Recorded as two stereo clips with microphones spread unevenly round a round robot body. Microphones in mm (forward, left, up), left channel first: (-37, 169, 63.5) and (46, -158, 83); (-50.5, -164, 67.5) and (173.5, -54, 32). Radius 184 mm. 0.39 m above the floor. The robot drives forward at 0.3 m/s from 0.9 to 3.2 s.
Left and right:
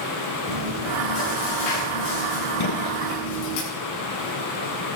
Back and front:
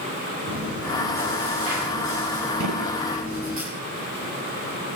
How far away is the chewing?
About 7 m.